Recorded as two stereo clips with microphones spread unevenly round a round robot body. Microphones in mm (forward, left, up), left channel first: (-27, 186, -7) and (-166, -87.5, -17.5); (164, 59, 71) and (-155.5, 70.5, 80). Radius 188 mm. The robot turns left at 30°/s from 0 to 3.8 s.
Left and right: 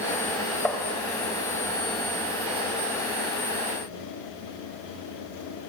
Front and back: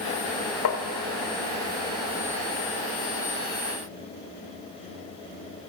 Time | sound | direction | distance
0.7 | tapping | 25° right | 1.6 m